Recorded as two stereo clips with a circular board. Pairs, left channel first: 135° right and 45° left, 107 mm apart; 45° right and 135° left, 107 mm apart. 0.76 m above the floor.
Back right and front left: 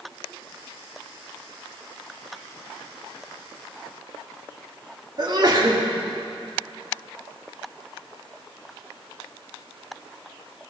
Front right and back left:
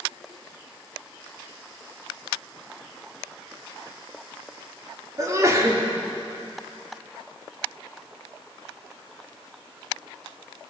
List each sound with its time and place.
5.2 s a sneeze: 80° left, 2 m